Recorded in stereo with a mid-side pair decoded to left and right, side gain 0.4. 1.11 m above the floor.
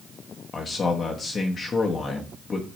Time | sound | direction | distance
0.5 | a man speaking | 45° left | 1.2 m